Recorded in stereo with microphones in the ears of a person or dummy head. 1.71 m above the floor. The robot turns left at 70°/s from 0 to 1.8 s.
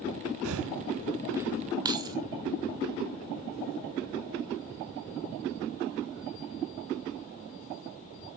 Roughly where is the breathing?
Right.